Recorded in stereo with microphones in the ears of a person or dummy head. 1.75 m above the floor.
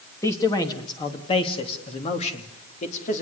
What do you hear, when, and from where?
0.2 s a man speaking: 20° left (ahead or behind), 2.5 m; by 3.2 s 45° left (ahead or behind), 3.5 m